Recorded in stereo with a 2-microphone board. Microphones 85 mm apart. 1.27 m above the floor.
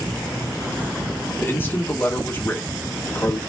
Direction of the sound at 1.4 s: 25° left (ahead or behind).